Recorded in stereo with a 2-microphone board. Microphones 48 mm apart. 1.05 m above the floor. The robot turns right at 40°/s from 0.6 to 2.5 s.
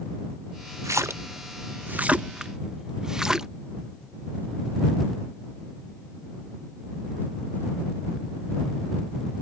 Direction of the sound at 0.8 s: 75° right (ahead or behind).